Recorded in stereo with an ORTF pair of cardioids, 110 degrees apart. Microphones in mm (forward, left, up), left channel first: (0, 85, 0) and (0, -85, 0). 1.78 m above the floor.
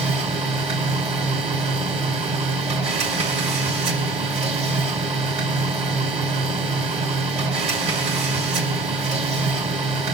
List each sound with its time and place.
0.0 s a machine running: 40° right, 5 m